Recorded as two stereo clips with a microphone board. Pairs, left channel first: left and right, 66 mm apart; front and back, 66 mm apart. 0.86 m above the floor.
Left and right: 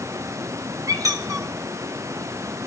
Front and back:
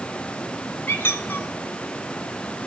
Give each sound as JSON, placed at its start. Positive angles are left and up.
{"t": 0.9, "sound": "a squeak", "azimuth_deg": -60, "distance_m": 1.3}